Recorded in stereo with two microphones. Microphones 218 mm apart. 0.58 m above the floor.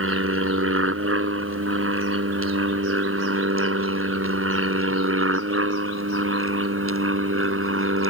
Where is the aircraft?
80° right; by 8.1 s 75° right (ahead or behind).